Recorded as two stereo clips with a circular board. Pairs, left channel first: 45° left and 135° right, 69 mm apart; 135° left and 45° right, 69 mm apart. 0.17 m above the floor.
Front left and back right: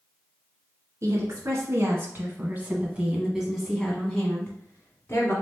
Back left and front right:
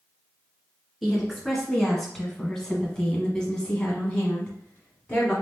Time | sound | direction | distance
1.0 | a woman speaking | 135° right | 1.7 m